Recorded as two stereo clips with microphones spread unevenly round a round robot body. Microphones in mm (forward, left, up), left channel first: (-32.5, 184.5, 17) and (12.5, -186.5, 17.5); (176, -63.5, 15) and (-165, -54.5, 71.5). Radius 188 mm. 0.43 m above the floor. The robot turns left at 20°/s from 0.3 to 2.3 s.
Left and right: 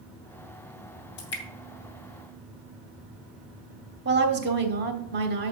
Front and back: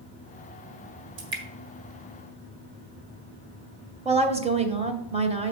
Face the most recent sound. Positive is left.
turn(degrees=-110)